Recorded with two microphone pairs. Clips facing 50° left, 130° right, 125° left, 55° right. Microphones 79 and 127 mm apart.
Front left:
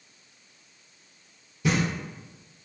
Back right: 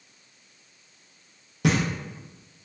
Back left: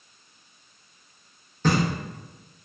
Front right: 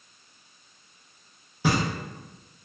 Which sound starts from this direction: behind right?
Knocking, at 1.6 s.